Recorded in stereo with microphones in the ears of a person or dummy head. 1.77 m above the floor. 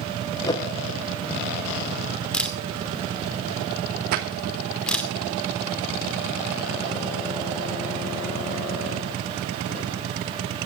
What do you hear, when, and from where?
0.5 s a whoosh: 20° left (ahead or behind), 1.1 m
2.3 s a camera shutter: centre (ahead or behind), 2.5 m
4.1 s a splash: 55° right (ahead or behind), 2.5 m